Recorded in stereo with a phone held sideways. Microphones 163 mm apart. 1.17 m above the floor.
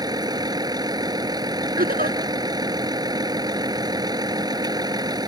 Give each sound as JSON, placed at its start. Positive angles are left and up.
{"t": 0.0, "sound": "a vehicle", "side_deg": -25}
{"t": 1.8, "sound": "a giggle", "side_deg": -60}